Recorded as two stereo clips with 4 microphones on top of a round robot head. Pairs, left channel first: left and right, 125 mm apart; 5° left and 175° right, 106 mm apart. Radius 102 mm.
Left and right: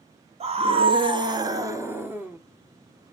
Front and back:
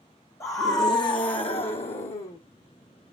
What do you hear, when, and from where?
0.4 s a scream: 60° right, 2.0 m; by 2.4 s 15° right, 2.5 m